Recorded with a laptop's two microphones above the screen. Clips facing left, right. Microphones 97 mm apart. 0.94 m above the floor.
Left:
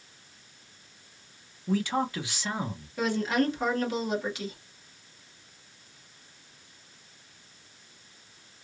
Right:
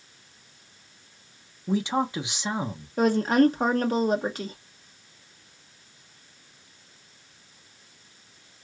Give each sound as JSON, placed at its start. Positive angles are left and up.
{"t": 1.7, "sound": "a man speaking", "side_deg": -20, "distance_m": 0.6}
{"t": 3.0, "sound": "a woman speaking", "side_deg": -45, "distance_m": 0.9}